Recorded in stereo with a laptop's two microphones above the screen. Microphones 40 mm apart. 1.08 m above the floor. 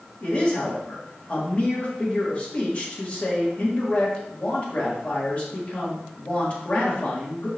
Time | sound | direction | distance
0.2 | a man speaking | 30° left (ahead or behind) | 2 m